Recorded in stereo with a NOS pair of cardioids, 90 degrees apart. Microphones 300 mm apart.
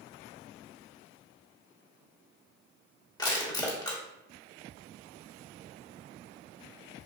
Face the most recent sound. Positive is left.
turn(degrees=15)